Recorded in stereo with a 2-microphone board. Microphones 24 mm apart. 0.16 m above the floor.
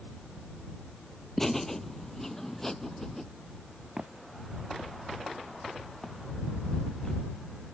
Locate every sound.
1.4 s laughter: 15° left (ahead or behind)
4.0 s footsteps: 30° right (ahead or behind); by 7.2 s 20° left (ahead or behind)